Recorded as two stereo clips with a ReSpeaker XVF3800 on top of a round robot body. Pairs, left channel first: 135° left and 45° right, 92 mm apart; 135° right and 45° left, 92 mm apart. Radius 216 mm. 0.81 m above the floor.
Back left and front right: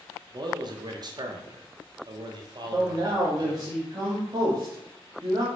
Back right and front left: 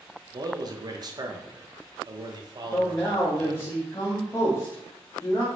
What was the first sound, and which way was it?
A man speaking, 5° right.